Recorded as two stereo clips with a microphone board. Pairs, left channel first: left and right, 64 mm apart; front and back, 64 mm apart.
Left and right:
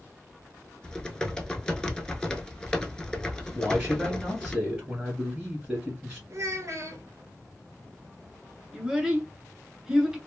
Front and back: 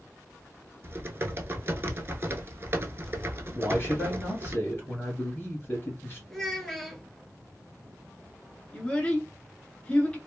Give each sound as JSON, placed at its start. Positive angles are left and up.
{"t": 0.8, "sound": "typing on a keyboard", "azimuth_deg": 160, "distance_m": 0.5}
{"t": 3.5, "sound": "a man speaking", "azimuth_deg": -20, "distance_m": 1.7}
{"t": 6.3, "sound": "a child speaking", "azimuth_deg": -80, "distance_m": 1.3}
{"t": 8.7, "sound": "a child speaking", "azimuth_deg": -25, "distance_m": 0.9}